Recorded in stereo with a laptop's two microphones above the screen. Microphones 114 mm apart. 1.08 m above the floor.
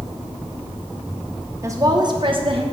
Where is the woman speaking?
25° right (ahead or behind), 0.9 m; by 2.6 s 55° right (ahead or behind), 1.1 m.